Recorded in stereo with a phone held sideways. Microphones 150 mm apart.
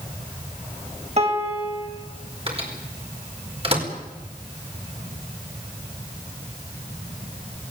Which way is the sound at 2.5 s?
40° right (ahead or behind).